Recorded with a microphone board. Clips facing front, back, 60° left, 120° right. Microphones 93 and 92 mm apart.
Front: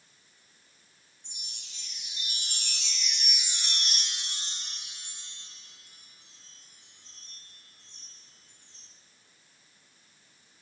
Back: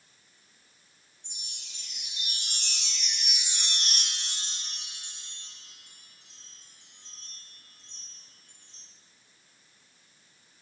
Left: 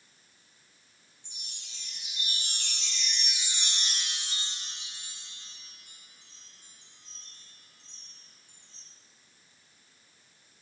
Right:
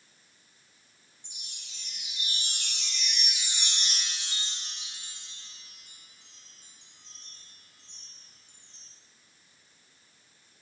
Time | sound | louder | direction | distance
1.2 | a chime | back 1 dB, even | 170° left | 1.1 m